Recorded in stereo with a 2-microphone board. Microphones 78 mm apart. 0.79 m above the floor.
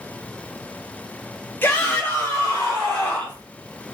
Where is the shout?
30° left (ahead or behind), 1.5 m.